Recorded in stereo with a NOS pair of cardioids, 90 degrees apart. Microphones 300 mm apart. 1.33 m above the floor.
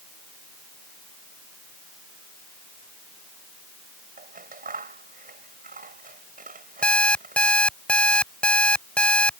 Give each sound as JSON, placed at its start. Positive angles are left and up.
{"t": 4.2, "sound": "scissors", "azimuth_deg": -30}
{"t": 6.8, "sound": "an alarm clock", "azimuth_deg": 5}